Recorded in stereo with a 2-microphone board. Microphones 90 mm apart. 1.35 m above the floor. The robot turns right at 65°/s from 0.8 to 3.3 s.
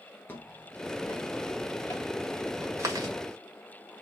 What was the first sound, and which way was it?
Footsteps, 20° left (ahead or behind).